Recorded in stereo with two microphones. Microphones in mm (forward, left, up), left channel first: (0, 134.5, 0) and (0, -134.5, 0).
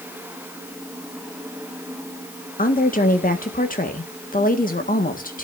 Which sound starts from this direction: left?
A woman speaking, at 2.6 s.